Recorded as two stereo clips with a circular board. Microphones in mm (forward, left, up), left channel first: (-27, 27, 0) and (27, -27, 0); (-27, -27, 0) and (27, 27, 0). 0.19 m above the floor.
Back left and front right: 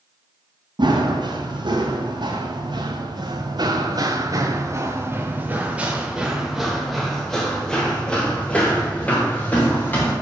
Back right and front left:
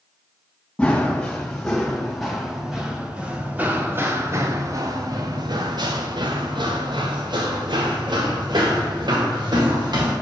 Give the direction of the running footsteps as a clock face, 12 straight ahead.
2 o'clock.